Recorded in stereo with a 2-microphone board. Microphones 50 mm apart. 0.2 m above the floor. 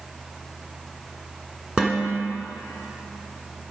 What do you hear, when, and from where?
1.8 s dishes clattering: 15° right (ahead or behind), 1.5 m